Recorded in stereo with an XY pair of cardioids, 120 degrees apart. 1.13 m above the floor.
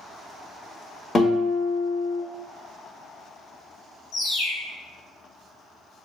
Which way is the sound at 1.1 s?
30° left.